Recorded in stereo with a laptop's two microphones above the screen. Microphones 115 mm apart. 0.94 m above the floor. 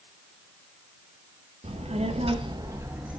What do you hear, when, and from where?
1.6 s a child speaking: 60° right (ahead or behind), 0.9 m; by 3.2 s 10° right (ahead or behind), 1.0 m